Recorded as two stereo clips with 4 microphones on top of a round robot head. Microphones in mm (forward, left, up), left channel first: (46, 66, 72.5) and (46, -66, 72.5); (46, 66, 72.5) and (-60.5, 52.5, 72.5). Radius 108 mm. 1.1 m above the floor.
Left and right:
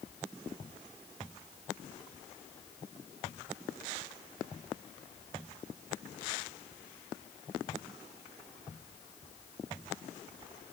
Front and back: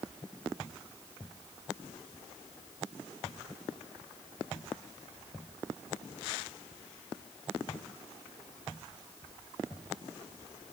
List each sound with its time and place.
Only background noise.